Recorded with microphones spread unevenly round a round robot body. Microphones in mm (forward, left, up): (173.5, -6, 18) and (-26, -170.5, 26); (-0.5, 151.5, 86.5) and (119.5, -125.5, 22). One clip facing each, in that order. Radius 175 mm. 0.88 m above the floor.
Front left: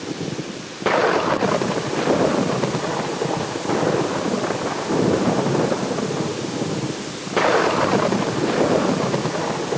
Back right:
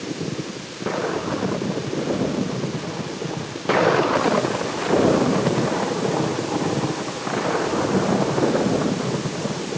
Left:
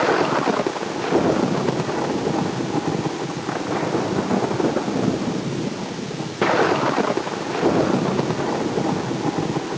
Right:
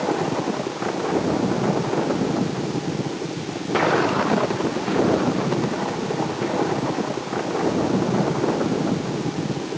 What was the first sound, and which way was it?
Only background noise.